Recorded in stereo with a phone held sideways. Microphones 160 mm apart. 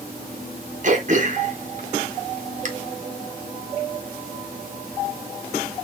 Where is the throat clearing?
50° right (ahead or behind), 1.1 m.